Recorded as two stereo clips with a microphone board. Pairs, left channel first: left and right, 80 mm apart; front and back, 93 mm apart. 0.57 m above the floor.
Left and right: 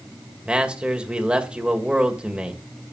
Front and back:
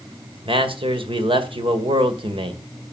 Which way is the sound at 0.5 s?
165° right.